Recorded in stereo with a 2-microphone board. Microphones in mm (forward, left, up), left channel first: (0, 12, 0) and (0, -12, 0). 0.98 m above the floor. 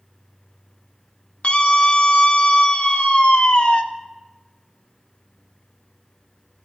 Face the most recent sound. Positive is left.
turn(degrees=55)  # may be behind; listen again after turning